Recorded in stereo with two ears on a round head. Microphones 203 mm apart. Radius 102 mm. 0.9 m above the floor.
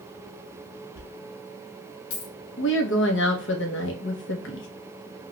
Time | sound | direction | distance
0.9 | a dropped coin | 65° left (ahead or behind) | 1.2 m
2.6 | a woman speaking | 55° left (ahead or behind) | 0.8 m